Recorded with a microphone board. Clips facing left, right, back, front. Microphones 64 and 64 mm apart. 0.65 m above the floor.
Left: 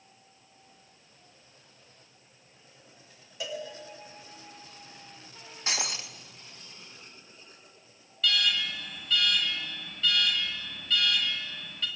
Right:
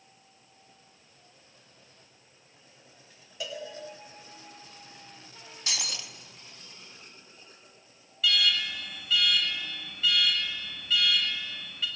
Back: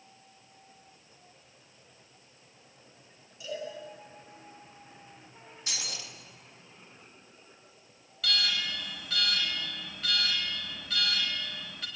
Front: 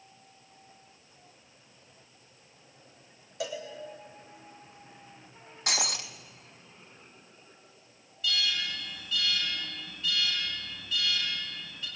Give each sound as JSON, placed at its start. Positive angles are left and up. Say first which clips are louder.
{"t": 3.4, "sound": "a cowbell", "louder": "left 1 dB, front 2 dB", "azimuth_deg": 5, "distance_m": 5.0}
{"t": 5.7, "sound": "breaking glass", "louder": "left 3 dB, front 8 dB", "azimuth_deg": 30, "distance_m": 1.6}
{"t": 8.2, "sound": "an alarm", "louder": "right 1 dB, even", "azimuth_deg": -175, "distance_m": 5.0}